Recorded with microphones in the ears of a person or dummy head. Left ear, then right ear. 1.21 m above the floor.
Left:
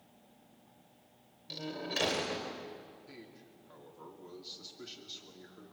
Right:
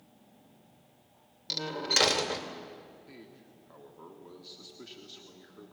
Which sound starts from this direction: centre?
A man speaking, at 3.1 s.